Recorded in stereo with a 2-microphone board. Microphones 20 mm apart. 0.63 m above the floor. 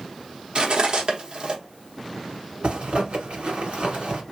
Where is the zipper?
65° right (ahead or behind), 1.5 m.